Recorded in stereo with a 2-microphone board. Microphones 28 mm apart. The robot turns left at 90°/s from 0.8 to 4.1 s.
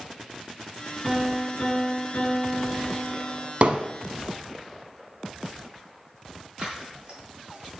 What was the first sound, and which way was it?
A piano, 175° left.